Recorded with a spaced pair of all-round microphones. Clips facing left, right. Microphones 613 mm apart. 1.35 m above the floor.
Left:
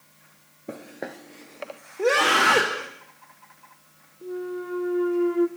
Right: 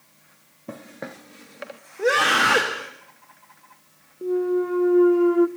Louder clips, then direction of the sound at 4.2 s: Right 10 dB; 70° right (ahead or behind).